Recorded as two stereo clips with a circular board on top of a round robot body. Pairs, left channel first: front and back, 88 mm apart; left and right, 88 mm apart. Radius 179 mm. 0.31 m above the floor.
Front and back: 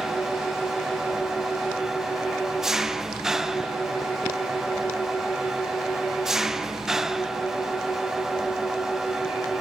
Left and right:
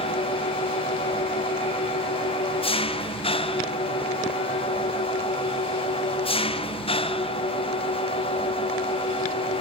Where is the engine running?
95° left, 1.0 m.